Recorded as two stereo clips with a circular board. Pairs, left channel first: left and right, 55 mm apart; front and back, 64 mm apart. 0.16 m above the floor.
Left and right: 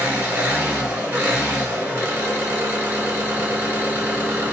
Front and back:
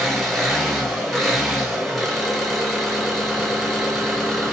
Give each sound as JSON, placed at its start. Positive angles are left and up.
{"t": 0.0, "sound": "an engine running", "azimuth_deg": -90, "distance_m": 1.6}